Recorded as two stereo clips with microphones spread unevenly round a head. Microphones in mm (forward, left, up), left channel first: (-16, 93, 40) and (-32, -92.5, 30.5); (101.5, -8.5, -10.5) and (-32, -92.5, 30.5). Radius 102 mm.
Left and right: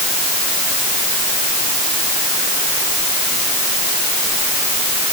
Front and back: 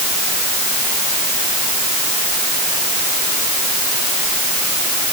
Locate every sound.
Only background noise.